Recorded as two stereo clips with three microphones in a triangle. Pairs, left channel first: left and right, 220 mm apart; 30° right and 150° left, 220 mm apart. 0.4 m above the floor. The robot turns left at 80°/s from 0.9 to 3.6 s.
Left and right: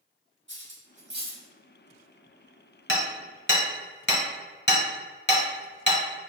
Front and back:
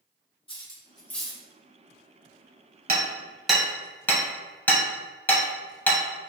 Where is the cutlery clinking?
95° right, 0.9 m; by 1.4 s 140° right, 0.9 m.